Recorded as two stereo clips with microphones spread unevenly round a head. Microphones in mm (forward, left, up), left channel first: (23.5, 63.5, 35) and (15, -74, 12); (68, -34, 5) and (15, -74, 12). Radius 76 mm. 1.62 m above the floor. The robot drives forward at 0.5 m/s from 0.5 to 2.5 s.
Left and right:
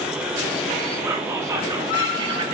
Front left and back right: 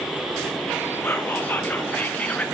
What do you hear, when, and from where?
1.0 s whispering: 20° right, 1.6 m; by 2.5 s 35° right, 1.0 m